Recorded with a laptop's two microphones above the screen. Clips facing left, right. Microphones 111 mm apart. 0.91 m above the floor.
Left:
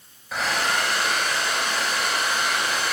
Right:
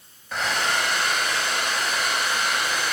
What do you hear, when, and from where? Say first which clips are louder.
0.3 s a hair dryer: even; centre (ahead or behind), 4 m